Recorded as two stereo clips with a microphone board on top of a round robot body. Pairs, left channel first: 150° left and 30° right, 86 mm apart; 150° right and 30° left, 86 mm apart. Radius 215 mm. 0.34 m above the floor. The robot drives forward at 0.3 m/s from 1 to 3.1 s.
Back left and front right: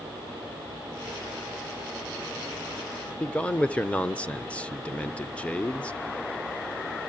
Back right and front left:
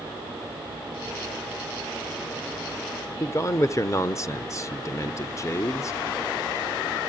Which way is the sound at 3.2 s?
145° right.